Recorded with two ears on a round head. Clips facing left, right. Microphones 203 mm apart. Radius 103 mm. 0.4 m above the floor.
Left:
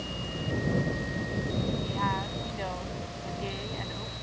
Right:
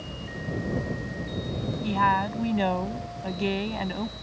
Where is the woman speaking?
70° right (ahead or behind).